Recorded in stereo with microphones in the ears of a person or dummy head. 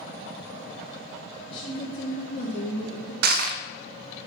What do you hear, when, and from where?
1.5 s a woman speaking: 70° left (ahead or behind), 2.5 m; by 3.1 s 60° left (ahead or behind), 2.5 m
3.2 s crushing: 60° right (ahead or behind), 0.5 m